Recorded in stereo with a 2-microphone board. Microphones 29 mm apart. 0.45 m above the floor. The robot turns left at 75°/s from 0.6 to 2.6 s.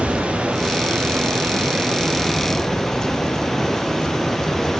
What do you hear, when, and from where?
0.0 s running water: 35° right, 6.5 m; by 4.8 s 175° left, 6.5 m